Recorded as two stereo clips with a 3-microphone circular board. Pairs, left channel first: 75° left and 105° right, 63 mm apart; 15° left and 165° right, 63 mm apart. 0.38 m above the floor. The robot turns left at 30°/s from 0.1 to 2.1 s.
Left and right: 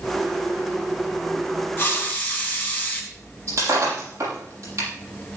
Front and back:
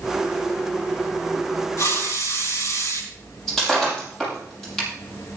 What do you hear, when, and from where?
1.8 s a hiss: 25° left, 3.5 m; by 3.0 s 15° left, 3.5 m
3.5 s breaking glass: 70° right, 7 m